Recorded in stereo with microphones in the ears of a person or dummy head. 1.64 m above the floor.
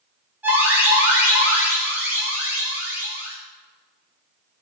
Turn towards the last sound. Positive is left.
turn(degrees=-10)  # may be behind; listen again after turning